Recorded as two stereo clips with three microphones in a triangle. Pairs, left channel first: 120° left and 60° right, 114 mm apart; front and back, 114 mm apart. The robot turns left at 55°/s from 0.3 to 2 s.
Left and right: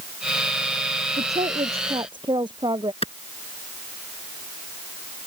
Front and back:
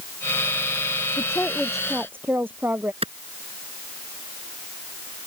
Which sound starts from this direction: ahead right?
A woman speaking, at 1.2 s.